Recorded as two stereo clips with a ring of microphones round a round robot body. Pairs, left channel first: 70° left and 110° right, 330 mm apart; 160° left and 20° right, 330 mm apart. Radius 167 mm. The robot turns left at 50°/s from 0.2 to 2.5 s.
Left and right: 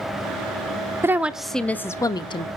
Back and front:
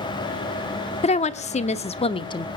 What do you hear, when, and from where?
1.0 s a woman speaking: straight behind, 0.7 m; by 2.5 s 105° left, 0.7 m